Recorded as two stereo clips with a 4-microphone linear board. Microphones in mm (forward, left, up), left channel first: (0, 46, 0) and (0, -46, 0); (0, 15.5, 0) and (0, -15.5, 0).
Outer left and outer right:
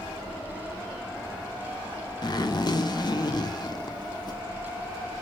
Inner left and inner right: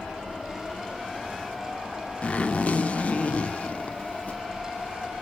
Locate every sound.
2.2 s a zipper: 45° left (ahead or behind), 0.5 m